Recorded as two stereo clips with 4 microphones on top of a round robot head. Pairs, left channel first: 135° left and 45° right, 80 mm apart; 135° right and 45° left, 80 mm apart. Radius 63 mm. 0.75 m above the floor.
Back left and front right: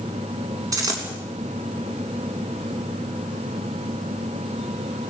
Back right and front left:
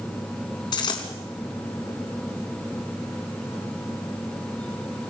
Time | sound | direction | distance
0.7 | a dropped coin | 100° right | 3.5 m